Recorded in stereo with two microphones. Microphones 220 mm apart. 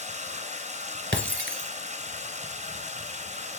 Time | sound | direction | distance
0.0 | running water | 35° right (ahead or behind) | 2 m
1.1 | breaking glass | 60° right (ahead or behind) | 1.0 m